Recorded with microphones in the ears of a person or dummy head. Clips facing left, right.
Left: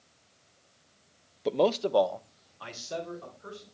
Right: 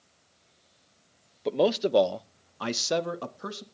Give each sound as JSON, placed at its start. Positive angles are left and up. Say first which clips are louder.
{"t": 1.4, "sound": "a man speaking", "louder": "right 1 dB", "side_deg": 0, "distance_m": 0.9}